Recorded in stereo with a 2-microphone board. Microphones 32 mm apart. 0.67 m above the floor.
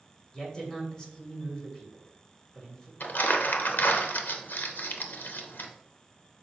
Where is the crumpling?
75° left (ahead or behind), 0.9 m.